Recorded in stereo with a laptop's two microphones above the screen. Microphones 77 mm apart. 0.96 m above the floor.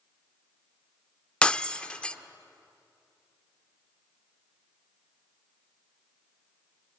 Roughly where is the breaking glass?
Centre.